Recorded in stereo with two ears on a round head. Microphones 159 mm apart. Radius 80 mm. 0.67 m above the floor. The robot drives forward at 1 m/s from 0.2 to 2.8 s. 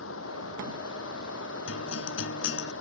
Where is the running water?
85° left; by 2.8 s 90° left.